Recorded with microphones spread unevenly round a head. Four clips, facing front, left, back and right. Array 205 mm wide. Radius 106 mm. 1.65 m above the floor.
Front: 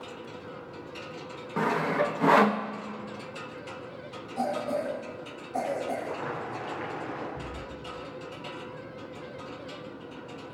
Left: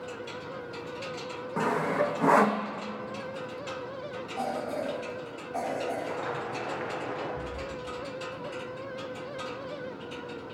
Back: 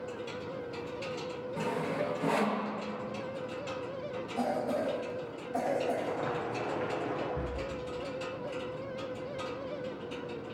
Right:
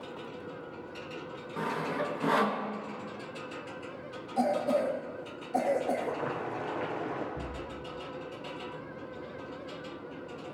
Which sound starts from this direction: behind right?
Boiling, at 6.0 s.